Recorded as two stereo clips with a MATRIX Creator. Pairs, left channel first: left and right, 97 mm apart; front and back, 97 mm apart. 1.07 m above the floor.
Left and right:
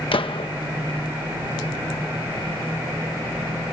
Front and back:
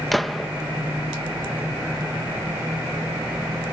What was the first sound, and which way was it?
A gunshot, 90° left.